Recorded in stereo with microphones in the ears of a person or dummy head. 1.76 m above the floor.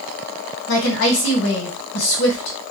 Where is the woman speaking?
60° left (ahead or behind), 1.3 m.